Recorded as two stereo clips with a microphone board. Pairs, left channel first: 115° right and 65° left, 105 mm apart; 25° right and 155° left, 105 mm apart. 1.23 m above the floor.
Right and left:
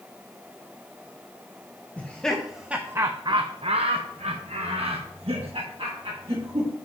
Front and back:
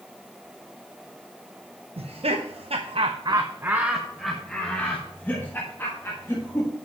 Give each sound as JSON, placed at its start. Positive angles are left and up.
{"t": 2.0, "sound": "laughter", "azimuth_deg": 170, "distance_m": 0.8}